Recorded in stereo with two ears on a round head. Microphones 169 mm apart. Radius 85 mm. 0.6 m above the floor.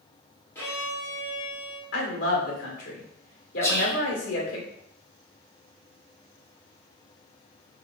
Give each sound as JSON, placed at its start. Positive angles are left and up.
{"t": 0.6, "sound": "a violin", "side_deg": 15, "distance_m": 1.3}
{"t": 1.9, "sound": "a woman speaking", "side_deg": 60, "distance_m": 1.8}
{"t": 3.6, "sound": "whispering", "side_deg": 15, "distance_m": 1.2}